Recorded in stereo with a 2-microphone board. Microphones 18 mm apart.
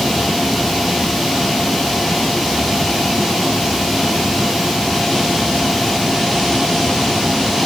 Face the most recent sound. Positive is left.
No sound to turn to.